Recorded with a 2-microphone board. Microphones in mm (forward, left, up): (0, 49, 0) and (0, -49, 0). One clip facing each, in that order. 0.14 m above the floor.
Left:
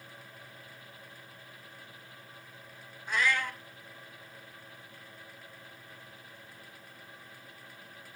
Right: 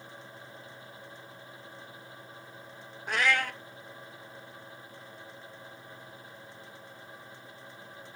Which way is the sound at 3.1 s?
65° right (ahead or behind).